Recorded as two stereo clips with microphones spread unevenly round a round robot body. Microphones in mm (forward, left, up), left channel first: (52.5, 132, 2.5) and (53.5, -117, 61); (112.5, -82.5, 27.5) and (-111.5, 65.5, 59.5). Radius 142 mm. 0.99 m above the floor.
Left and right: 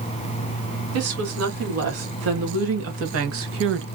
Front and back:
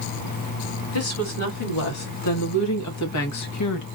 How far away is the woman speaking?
About 3 m.